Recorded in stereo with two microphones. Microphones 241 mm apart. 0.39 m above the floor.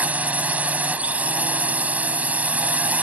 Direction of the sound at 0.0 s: 5° right (ahead or behind).